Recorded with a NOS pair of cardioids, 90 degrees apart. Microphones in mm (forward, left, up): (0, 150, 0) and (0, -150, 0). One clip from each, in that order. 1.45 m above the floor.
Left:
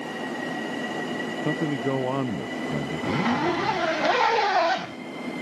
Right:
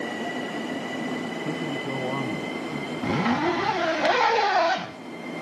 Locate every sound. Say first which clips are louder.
1.4 s a man speaking: left 6 dB; 45° left
3.0 s a zipper: right 1 dB; 10° right